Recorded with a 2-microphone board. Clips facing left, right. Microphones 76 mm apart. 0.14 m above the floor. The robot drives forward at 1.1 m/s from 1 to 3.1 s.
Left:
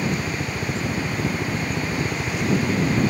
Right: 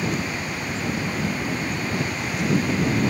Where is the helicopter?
65° left (ahead or behind).